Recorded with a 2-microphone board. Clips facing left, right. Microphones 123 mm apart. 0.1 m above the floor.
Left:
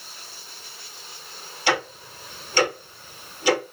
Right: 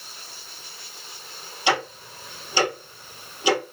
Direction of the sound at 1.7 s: 15° right (ahead or behind).